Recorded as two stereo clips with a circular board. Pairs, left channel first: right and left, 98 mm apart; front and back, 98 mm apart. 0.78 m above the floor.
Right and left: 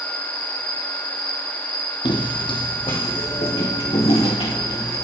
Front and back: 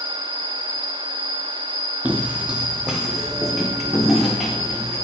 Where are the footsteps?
110° right, 1.4 m; by 5.0 s 90° right, 3.5 m.